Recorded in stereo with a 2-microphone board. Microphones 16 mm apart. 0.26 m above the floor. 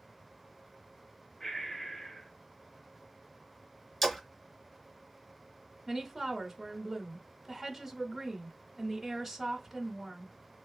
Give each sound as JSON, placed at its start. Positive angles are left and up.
{"t": 1.4, "sound": "breathing", "side_deg": 40, "distance_m": 1.4}
{"t": 4.0, "sound": "a splash", "side_deg": 25, "distance_m": 1.3}
{"t": 5.9, "sound": "a woman speaking", "side_deg": 0, "distance_m": 1.2}